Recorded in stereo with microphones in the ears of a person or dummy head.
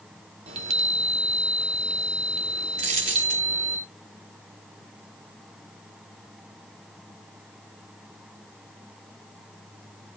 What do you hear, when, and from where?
0.5 s a chime: 35° right (ahead or behind), 2 m
2.8 s a dropped coin: 35° right (ahead or behind), 1.0 m